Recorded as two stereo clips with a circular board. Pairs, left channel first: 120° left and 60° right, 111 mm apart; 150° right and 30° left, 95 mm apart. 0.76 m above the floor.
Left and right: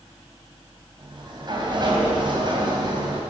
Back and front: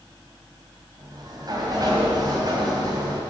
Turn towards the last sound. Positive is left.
turn(degrees=-15)